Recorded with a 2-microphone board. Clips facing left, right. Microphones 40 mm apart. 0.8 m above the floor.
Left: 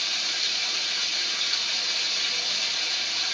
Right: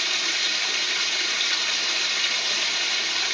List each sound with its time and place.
0.0 s running water: 75° right (ahead or behind), 0.9 m